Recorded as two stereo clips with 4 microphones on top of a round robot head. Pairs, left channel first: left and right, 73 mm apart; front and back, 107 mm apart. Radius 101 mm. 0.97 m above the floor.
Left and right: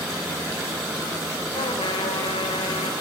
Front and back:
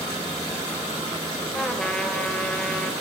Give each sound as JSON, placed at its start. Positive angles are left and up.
{"t": 1.5, "sound": "a trumpet", "azimuth_deg": 85, "distance_m": 2.5}